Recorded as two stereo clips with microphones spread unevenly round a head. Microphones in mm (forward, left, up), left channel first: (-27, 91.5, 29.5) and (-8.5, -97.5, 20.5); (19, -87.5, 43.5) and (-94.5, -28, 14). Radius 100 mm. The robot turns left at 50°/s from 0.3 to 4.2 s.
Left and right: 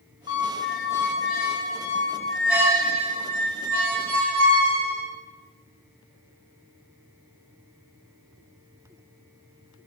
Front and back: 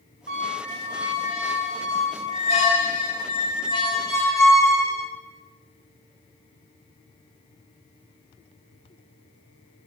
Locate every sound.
0.3 s a squeak: 110° left, 1.1 m; by 5.1 s 85° right, 1.1 m